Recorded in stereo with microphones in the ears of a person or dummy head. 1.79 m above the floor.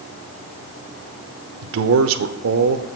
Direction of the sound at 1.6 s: 80° right.